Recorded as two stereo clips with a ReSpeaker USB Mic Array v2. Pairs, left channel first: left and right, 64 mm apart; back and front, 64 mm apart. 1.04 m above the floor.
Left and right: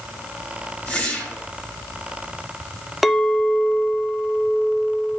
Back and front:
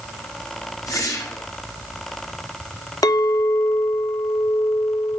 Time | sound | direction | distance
0.9 | a whoosh | 160° left | 3 m
3.0 | a clink | straight behind | 0.7 m